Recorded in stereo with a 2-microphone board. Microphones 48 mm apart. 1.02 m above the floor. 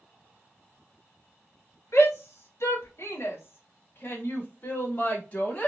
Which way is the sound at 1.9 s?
70° left (ahead or behind).